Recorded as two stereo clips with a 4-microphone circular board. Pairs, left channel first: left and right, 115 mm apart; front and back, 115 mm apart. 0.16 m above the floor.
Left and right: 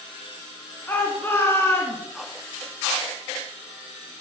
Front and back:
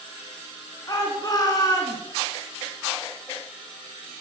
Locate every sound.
0.9 s a shout: 30° left, 2 m